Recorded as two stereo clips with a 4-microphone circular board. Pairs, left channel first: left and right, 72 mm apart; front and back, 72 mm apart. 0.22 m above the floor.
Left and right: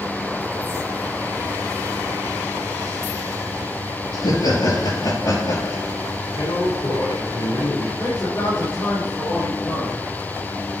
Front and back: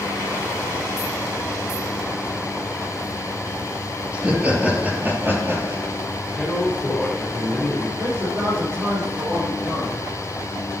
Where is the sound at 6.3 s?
85° left, 4.5 m.